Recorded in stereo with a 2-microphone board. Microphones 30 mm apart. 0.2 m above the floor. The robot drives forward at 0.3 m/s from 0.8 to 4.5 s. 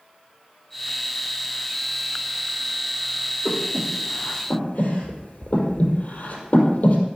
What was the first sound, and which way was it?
Breathing, 75° left (ahead or behind).